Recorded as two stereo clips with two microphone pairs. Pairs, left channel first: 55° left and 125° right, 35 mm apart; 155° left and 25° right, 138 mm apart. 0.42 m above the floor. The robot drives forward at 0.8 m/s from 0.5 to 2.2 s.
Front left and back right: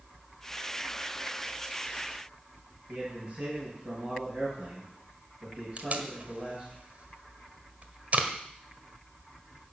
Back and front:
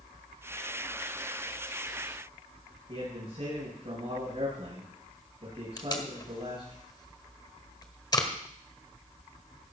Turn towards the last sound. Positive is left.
turn(degrees=-155)